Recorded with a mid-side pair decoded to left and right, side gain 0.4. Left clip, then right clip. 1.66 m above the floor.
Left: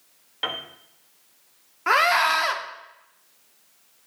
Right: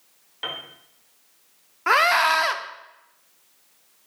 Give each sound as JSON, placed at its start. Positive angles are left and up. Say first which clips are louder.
{"t": 0.4, "sound": "a piano", "louder": "left 3 dB", "azimuth_deg": 30, "distance_m": 1.0}
{"t": 1.9, "sound": "a scream", "louder": "right 1 dB", "azimuth_deg": -15, "distance_m": 0.8}